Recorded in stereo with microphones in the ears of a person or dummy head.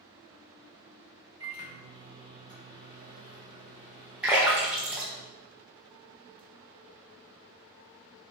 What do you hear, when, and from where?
1.4 s a microwave: 20° right (ahead or behind), 0.8 m
4.2 s a splash: 5° right (ahead or behind), 0.7 m